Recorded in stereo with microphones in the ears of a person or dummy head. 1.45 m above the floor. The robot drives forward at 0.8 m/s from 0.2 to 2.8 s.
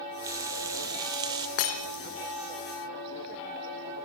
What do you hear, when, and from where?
0.2 s frying: 25° right (ahead or behind), 4 m; by 1.5 s 30° right (ahead or behind), 3 m
1.6 s breaking glass: 50° left (ahead or behind), 1.9 m